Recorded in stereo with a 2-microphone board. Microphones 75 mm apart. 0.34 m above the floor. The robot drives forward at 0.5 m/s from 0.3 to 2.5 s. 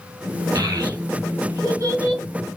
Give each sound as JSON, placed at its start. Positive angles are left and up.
{"t": 0.6, "sound": "a child speaking", "side_deg": -55, "distance_m": 1.8}